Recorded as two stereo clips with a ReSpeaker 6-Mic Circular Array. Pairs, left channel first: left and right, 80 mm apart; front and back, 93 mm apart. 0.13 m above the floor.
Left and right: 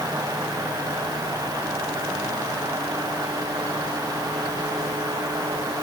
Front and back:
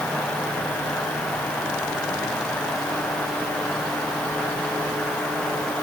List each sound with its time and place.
Only background noise.